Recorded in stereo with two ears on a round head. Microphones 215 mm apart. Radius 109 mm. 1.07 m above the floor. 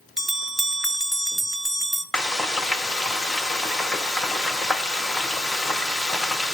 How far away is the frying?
About 0.5 m.